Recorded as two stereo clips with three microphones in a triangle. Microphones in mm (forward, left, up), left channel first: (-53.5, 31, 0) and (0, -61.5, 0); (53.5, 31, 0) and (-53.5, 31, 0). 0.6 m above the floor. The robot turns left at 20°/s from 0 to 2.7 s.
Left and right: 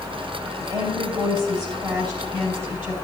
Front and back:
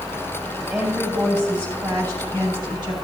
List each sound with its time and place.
0.6 s a woman speaking: 90° right, 5 m; by 2.9 s 130° right, 5 m